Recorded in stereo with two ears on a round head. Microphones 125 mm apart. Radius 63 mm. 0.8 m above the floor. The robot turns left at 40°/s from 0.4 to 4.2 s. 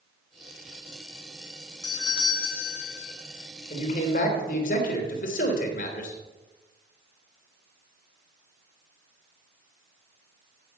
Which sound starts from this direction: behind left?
A doorbell, at 1.8 s.